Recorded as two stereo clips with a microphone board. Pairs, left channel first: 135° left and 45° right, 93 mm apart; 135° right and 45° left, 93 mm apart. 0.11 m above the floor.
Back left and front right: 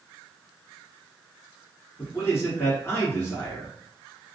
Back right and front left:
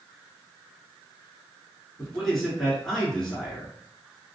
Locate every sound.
2.0 s a man speaking: 140° left, 1.3 m